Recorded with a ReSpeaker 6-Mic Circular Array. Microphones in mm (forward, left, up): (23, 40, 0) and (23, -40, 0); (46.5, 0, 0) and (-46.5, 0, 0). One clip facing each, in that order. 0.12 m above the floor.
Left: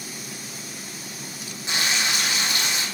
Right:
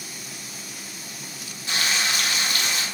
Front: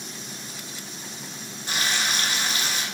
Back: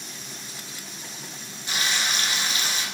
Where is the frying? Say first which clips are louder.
Even, front 1 dB; 30° left, 0.7 m.